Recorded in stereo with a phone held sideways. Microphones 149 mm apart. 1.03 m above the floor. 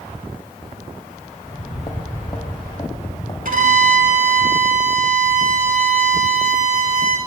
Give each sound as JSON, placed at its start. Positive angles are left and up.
{"t": 1.4, "sound": "footsteps", "side_deg": 30, "distance_m": 1.8}
{"t": 3.5, "sound": "a violin", "side_deg": -65, "distance_m": 1.7}